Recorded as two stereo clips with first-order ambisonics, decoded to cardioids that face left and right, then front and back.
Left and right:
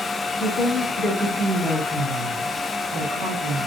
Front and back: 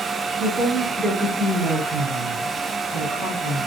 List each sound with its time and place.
0.4 s a woman speaking: 140° left, 0.9 m; by 3.7 s 70° right, 1.4 m